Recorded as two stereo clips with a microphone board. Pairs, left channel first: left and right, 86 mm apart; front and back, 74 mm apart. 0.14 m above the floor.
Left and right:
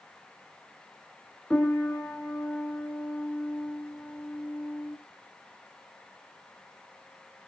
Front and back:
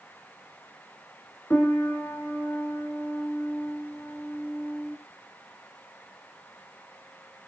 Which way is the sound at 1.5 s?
25° left.